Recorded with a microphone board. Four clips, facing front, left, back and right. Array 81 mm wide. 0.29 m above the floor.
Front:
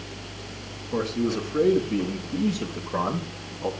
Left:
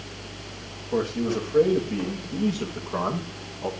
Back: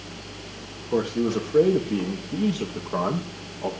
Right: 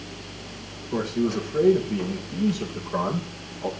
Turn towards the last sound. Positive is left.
turn(degrees=-170)